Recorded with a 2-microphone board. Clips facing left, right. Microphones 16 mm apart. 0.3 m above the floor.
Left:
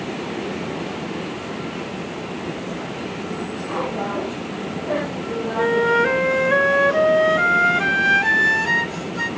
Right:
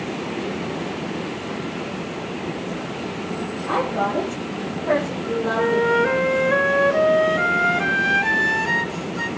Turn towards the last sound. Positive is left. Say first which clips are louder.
# left 2 dB
turn(degrees=10)  # may be behind; listen again after turning